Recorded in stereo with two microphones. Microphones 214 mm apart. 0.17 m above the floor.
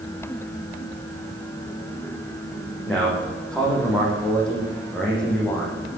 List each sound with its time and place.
2.9 s a man speaking: 5° left (ahead or behind), 8 m